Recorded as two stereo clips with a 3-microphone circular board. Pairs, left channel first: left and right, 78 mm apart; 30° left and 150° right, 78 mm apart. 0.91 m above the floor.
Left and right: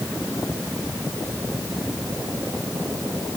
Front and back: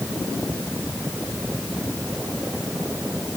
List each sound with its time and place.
Only background noise.